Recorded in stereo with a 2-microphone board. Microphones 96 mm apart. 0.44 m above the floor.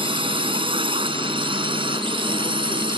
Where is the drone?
70° right (ahead or behind); by 3.0 s 65° right (ahead or behind).